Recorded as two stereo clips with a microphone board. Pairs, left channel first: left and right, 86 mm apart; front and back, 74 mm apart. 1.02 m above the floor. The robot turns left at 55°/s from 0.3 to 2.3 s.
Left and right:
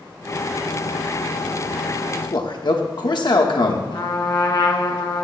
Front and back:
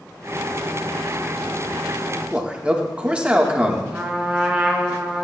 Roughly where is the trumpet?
Left.